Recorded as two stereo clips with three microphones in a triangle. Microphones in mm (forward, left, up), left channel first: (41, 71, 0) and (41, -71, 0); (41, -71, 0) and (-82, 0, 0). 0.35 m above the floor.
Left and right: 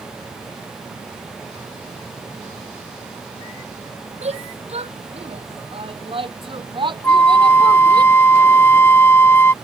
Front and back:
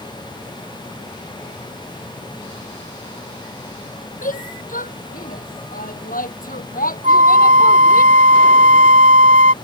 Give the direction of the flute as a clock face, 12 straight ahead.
7 o'clock.